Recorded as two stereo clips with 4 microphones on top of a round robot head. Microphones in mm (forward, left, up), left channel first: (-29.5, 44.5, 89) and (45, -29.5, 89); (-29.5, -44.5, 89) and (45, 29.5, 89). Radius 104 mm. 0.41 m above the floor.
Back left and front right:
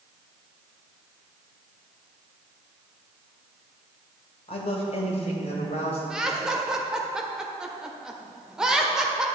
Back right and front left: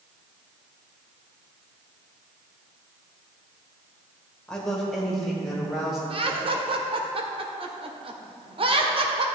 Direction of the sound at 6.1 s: 40° left.